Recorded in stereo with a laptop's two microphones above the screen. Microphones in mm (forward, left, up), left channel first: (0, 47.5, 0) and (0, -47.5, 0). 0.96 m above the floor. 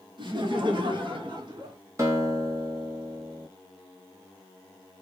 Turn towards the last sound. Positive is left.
turn(degrees=-30)  # may be behind; listen again after turning